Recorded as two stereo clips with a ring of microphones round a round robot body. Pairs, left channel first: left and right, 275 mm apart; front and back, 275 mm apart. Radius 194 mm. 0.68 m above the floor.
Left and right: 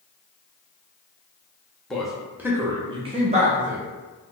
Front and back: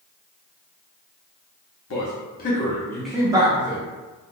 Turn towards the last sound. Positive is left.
turn(degrees=-145)